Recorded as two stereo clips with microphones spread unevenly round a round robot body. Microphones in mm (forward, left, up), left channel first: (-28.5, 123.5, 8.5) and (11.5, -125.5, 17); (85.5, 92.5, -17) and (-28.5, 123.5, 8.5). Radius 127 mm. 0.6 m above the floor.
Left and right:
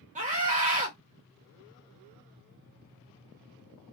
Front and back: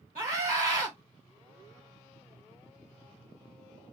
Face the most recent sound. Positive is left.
turn(degrees=-140)